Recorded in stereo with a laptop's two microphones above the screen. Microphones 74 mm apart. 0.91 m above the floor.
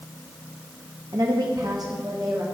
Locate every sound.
1.1 s a woman speaking: 55° right (ahead or behind), 0.8 m; by 2.4 s 60° right (ahead or behind), 1.6 m